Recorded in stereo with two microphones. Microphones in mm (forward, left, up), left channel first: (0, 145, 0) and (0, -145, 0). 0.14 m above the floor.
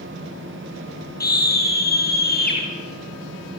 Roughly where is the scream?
Left.